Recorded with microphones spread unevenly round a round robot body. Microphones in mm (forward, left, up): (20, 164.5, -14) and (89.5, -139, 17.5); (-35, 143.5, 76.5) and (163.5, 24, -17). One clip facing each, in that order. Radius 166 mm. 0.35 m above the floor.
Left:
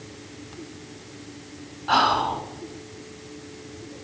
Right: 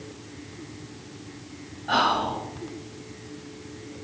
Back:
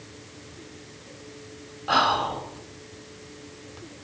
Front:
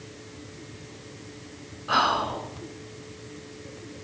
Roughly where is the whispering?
Behind.